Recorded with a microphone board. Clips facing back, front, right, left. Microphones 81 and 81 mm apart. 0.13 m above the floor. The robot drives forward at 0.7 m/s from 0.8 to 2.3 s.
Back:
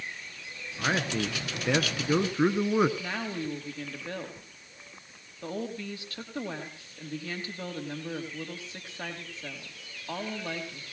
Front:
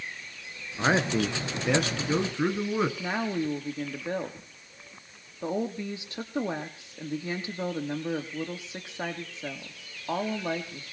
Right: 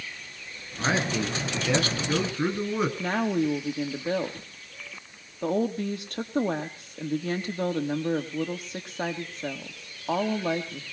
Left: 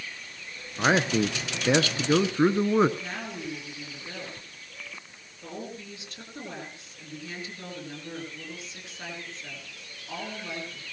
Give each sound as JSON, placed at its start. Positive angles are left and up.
{"t": 0.8, "sound": "a man speaking", "azimuth_deg": 45, "distance_m": 1.6}
{"t": 3.0, "sound": "a woman speaking", "azimuth_deg": -70, "distance_m": 3.5}